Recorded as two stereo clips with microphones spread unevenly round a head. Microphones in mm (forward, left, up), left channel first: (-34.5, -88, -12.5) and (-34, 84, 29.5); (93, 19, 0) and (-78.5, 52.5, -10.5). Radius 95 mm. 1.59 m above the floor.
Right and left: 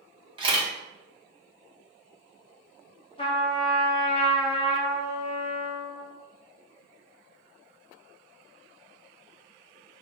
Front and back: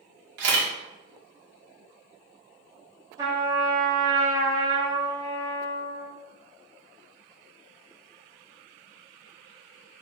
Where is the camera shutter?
150° left, 1.6 m.